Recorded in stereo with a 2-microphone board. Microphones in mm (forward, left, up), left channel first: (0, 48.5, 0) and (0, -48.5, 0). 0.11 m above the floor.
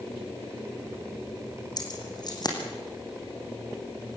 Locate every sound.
1.8 s keys jangling: 45° left (ahead or behind), 4 m